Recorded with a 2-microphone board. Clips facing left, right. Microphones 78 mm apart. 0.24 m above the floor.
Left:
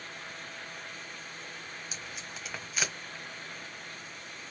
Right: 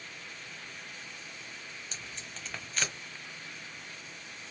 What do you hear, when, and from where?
1.9 s tape being pulled: 10° left (ahead or behind), 1.3 m